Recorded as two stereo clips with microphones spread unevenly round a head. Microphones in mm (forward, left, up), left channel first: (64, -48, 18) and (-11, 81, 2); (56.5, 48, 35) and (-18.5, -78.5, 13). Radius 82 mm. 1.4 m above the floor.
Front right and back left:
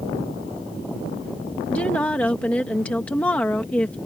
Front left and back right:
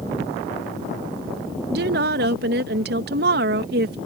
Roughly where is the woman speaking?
Behind right.